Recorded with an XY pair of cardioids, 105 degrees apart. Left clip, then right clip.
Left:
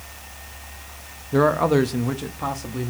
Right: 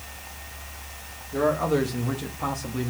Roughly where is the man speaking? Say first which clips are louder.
Left 5 dB; ahead left.